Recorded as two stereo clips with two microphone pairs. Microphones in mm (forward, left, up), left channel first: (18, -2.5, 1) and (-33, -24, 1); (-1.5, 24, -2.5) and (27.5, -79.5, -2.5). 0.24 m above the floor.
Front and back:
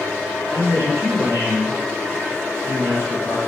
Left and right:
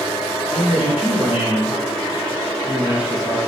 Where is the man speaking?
145° right, 3.5 m.